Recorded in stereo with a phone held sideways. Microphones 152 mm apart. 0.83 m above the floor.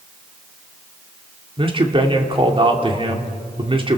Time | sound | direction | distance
1.6 | a man speaking | 35° right (ahead or behind) | 2.5 m